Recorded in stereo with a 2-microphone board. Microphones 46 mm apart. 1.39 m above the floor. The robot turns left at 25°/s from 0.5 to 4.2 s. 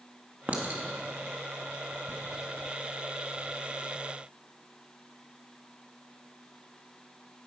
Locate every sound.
0.5 s a clink: 35° right (ahead or behind), 1.7 m; by 2.2 s 75° right (ahead or behind), 1.7 m